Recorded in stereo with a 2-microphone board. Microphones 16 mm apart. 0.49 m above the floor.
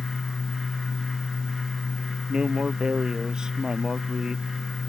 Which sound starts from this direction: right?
A man speaking, at 2.3 s.